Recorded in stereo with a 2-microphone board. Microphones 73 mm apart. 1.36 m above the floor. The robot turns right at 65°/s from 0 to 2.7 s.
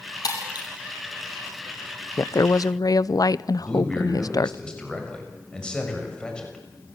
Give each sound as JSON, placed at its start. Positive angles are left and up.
{"t": 0.2, "sound": "breaking glass", "side_deg": 60, "distance_m": 6.5}
{"t": 2.2, "sound": "a woman speaking", "azimuth_deg": 55, "distance_m": 0.7}
{"t": 3.6, "sound": "a man speaking", "side_deg": 10, "distance_m": 6.5}